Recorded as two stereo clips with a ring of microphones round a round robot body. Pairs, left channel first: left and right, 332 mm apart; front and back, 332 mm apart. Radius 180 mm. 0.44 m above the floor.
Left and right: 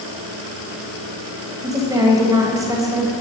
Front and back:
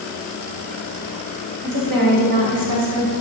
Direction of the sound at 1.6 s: 170° right.